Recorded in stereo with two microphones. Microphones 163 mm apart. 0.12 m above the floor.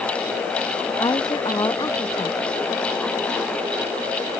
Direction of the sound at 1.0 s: 25° left (ahead or behind).